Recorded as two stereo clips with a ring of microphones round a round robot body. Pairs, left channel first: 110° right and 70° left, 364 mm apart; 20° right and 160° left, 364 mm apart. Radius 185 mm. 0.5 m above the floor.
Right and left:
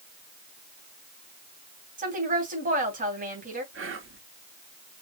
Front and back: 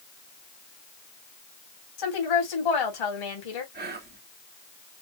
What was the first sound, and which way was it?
A woman speaking, straight ahead.